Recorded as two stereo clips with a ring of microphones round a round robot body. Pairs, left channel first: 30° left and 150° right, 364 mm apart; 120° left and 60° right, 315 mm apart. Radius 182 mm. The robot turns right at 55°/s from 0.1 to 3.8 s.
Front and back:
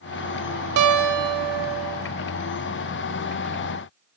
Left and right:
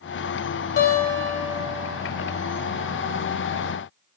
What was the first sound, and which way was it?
A guitar, 175° left.